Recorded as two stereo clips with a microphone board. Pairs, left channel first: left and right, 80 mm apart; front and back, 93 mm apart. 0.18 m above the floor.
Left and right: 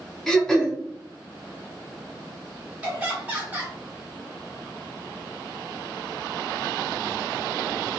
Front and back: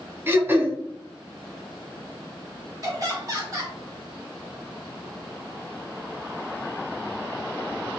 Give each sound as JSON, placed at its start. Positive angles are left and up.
{"t": 0.3, "sound": "throat clearing", "azimuth_deg": 165, "distance_m": 0.8}
{"t": 2.8, "sound": "laughter", "azimuth_deg": -155, "distance_m": 1.6}